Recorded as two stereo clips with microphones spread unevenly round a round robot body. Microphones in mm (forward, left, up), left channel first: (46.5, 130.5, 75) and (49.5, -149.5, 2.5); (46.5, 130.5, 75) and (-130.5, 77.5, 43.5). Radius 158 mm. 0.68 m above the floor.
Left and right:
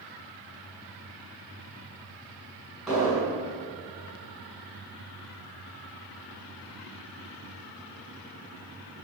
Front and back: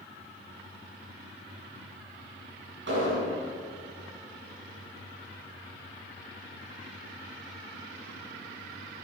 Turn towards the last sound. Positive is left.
turn(degrees=-175)